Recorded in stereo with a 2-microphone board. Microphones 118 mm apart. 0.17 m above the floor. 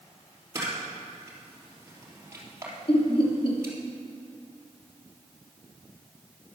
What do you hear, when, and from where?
0.6 s a camera shutter: 20° right (ahead or behind), 3.5 m
2.9 s laughter: 50° left (ahead or behind), 2.5 m